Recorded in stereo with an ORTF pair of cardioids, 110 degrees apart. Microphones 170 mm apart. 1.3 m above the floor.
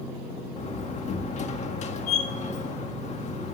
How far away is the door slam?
About 1.8 m.